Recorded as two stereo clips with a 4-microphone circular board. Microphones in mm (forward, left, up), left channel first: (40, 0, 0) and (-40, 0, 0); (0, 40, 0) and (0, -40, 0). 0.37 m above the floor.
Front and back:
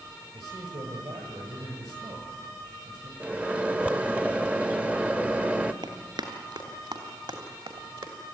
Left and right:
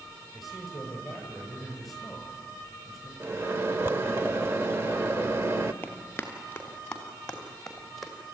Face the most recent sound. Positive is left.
turn(degrees=180)